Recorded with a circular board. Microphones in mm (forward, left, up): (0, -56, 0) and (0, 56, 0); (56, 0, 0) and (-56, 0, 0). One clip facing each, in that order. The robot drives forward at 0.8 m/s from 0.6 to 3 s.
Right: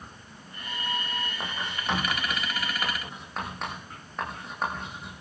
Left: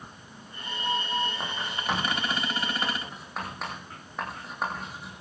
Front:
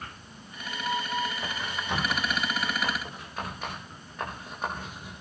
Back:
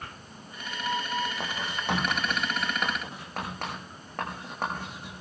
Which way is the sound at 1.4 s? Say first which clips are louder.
Left 1 dB, back 2 dB; straight behind.